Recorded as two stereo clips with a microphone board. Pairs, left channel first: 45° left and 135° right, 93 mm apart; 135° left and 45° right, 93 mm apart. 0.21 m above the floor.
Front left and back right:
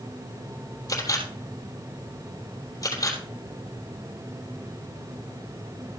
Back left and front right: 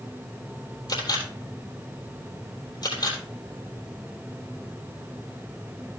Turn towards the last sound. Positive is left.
turn(degrees=95)